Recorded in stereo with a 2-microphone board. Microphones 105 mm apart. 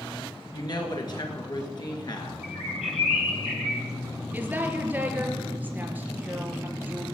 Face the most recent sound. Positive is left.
turn(degrees=-15)  # may be behind; listen again after turning